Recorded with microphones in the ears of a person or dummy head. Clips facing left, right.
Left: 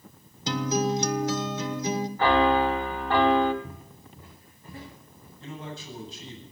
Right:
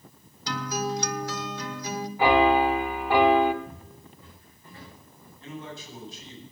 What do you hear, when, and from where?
0.5 s a guitar: 20° left (ahead or behind), 1.1 m
2.2 s a piano: 10° right (ahead or behind), 1.3 m
3.6 s footsteps: 40° left (ahead or behind), 6 m; by 5.3 s 45° left (ahead or behind), 8 m
5.4 s a man speaking: 65° left (ahead or behind), 8.5 m